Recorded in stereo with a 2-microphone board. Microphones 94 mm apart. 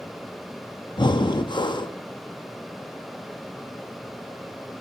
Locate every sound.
1.0 s breathing: 55° left (ahead or behind), 0.7 m